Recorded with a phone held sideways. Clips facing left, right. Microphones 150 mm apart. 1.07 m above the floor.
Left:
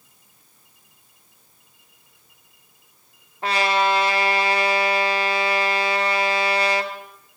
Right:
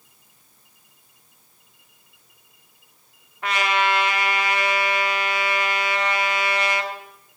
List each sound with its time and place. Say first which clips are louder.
3.4 s a trumpet: left 2 dB; 30° left (ahead or behind), 1.7 m